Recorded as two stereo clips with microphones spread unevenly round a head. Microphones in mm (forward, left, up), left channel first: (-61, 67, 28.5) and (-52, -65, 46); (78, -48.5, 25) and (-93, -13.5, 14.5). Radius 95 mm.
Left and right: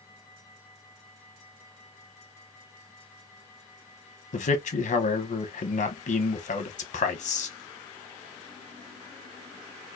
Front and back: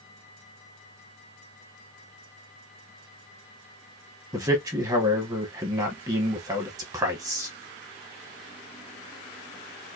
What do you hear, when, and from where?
4.3 s a man speaking: 100° left, 0.8 m